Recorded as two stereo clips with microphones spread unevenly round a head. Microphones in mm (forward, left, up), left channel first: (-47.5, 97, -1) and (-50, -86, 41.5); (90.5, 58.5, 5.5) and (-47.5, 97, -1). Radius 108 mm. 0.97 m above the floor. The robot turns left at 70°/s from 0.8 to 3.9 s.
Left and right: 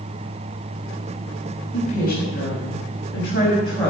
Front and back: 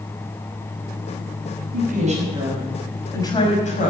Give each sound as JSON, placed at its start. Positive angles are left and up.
{"t": 1.7, "sound": "a woman speaking", "azimuth_deg": 155, "distance_m": 5.5}